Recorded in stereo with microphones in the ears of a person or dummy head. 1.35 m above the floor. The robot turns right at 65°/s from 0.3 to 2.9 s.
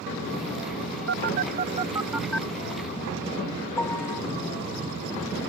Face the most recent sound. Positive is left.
turn(degrees=20)  # may be behind; listen again after turning